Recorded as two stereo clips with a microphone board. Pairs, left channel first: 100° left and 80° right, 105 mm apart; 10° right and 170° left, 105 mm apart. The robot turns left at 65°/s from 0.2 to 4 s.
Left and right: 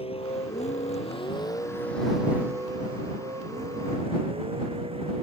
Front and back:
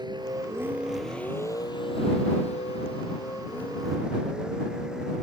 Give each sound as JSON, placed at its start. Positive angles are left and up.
{"t": 0.0, "sound": "a vehicle", "azimuth_deg": 125}